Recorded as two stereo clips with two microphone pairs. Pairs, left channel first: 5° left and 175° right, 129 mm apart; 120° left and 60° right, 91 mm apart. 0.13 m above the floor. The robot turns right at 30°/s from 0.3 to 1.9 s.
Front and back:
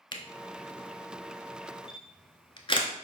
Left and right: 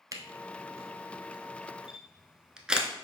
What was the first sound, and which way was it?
A camera shutter, 30° right.